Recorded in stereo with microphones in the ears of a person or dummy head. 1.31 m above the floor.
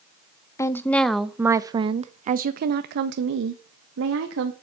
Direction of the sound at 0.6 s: 15° left (ahead or behind).